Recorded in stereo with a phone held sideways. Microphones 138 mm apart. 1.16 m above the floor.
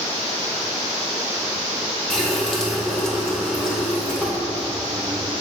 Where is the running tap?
5° left (ahead or behind), 2 m.